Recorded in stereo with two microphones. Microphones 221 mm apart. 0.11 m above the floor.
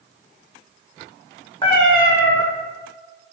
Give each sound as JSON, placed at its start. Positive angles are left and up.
{"t": 1.6, "sound": "a cat meowing", "side_deg": 25, "distance_m": 1.9}